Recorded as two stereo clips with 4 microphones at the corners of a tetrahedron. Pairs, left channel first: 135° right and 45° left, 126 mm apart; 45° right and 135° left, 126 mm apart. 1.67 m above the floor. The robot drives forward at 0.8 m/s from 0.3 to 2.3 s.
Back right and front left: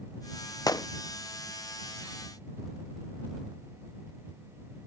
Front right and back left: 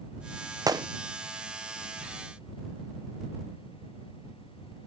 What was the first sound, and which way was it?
A gunshot, 175° right.